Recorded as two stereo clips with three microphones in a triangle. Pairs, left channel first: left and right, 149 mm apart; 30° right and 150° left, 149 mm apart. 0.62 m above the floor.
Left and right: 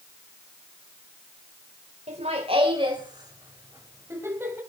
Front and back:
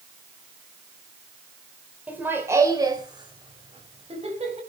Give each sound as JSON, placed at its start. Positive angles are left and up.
{"t": 2.1, "sound": "laughter", "azimuth_deg": -130, "distance_m": 2.5}